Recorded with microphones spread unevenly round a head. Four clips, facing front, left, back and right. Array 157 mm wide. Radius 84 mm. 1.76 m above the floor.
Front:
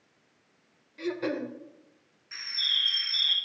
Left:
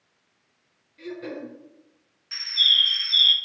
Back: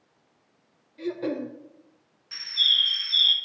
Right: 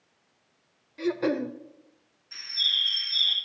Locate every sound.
1.0 s throat clearing: 105° right, 0.5 m
2.3 s a bird: 170° left, 0.8 m